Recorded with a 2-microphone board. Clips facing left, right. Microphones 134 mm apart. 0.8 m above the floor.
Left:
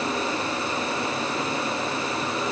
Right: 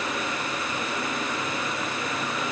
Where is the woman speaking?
I don't hear a woman speaking.